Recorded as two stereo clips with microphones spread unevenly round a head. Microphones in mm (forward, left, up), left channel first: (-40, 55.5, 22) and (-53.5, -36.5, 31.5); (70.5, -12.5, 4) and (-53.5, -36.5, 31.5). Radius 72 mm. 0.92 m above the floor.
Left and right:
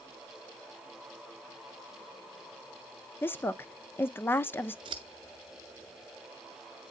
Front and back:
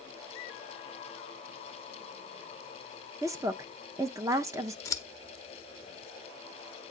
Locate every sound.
3.2 s a woman speaking: 120° left, 0.6 m
4.8 s scissors: 60° right, 0.6 m